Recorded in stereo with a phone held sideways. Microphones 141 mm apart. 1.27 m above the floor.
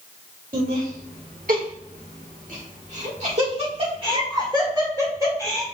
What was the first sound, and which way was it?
Laughter, 75° right (ahead or behind).